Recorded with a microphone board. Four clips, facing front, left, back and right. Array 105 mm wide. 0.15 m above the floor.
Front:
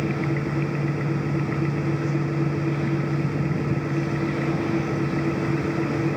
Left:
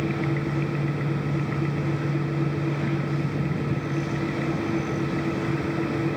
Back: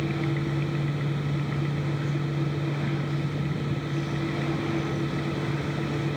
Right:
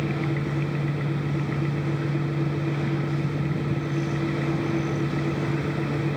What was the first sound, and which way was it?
Only background noise.